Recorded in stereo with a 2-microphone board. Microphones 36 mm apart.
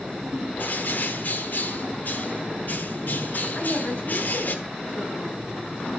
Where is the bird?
55° left (ahead or behind), 1.1 m.